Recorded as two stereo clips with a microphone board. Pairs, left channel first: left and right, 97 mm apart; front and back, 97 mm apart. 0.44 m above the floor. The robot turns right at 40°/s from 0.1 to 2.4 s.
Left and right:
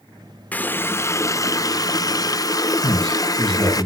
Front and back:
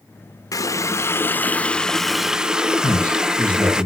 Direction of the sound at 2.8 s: 75° left.